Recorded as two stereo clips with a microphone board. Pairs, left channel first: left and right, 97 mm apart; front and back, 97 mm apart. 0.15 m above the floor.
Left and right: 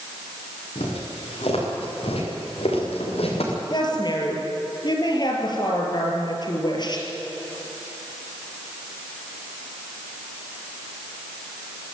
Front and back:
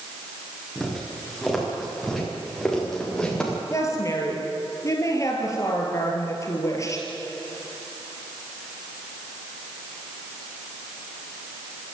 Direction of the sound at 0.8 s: 95° left.